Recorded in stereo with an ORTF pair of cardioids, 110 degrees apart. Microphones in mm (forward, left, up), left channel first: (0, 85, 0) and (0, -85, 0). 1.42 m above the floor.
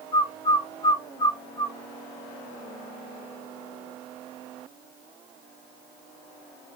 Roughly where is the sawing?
No sawing in this recording.